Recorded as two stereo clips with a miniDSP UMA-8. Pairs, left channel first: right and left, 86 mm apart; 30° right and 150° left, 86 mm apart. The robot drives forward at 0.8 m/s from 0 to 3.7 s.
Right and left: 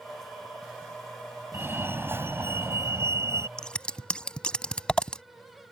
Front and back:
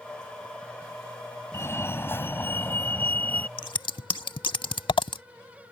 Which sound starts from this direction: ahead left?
A fire alarm, at 1.5 s.